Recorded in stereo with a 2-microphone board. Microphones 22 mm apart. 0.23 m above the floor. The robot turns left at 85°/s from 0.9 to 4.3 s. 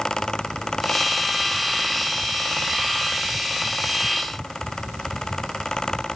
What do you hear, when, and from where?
Only background noise.